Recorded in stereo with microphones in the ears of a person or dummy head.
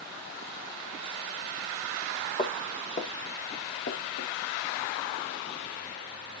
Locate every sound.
2.4 s footsteps: 40° left (ahead or behind), 2.5 m; by 4.3 s 70° left (ahead or behind), 3.5 m